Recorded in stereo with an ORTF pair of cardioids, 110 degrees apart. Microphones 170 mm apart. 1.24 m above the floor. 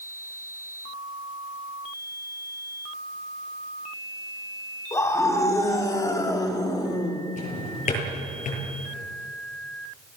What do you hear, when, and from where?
4.9 s a scream: 20° left, 4.5 m; by 7.2 s 25° left, 3 m
7.4 s a drawer: 45° left, 7.5 m